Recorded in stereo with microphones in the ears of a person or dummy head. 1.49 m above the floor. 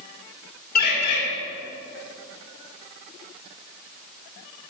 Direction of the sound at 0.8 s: 50° left (ahead or behind).